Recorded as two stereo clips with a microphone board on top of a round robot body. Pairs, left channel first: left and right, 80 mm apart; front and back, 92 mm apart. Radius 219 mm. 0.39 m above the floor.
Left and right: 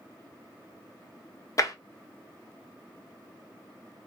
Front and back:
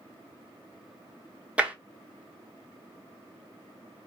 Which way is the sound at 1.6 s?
110° left.